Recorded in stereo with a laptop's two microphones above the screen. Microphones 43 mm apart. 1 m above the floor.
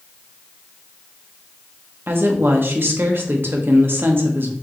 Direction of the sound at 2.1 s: 60° right (ahead or behind).